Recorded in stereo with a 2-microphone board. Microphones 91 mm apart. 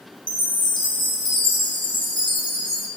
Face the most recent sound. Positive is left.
turn(degrees=55)  # may be behind; listen again after turning